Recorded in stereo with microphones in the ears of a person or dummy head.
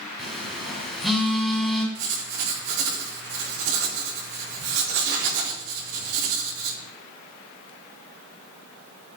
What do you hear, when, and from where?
0.2 s a phone buzzing: centre (ahead or behind), 2 m
1.9 s writing: 70° right (ahead or behind), 4 m